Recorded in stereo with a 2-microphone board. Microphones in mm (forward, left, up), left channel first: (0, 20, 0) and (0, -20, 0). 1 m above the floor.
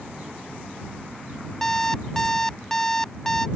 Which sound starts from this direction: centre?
An alarm clock, at 1.6 s.